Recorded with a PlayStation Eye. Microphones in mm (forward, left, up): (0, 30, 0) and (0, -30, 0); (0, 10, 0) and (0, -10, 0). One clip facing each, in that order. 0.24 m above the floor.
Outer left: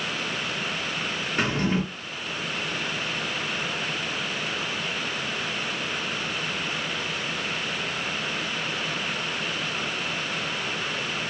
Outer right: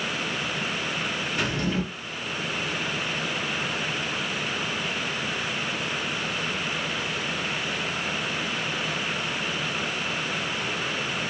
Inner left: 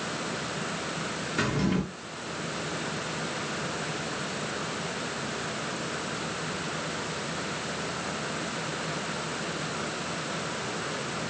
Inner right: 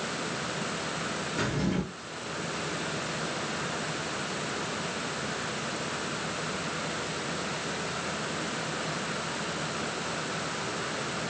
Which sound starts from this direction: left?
A drawer, at 1.4 s.